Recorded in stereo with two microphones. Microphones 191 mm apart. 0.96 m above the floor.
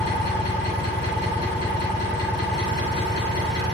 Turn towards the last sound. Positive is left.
turn(degrees=60)  # may be behind; listen again after turning